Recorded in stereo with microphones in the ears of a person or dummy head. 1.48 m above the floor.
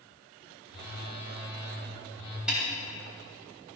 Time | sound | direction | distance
0.7 | a phone buzzing | 25° left (ahead or behind) | 4 m
2.5 | a snare drum | 5° right (ahead or behind) | 5 m